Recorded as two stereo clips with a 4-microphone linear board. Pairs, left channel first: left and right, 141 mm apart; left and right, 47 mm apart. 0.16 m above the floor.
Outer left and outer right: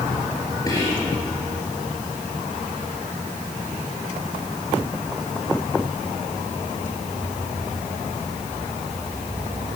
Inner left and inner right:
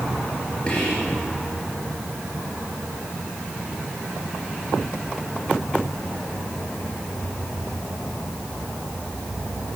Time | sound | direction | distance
0.7 | whispering | 25° left (ahead or behind) | 3.5 m